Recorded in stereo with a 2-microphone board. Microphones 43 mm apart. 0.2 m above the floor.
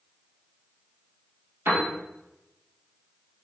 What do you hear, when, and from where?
1.6 s a piano: 65° right (ahead or behind), 1.7 m